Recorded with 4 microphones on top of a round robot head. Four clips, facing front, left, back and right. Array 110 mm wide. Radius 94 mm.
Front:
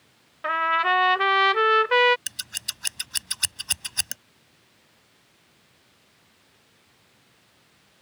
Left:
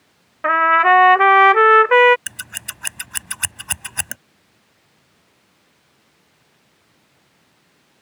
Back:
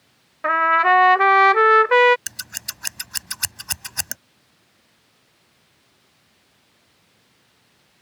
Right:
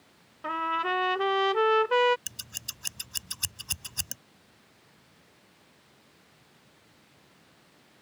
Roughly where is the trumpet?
Behind left.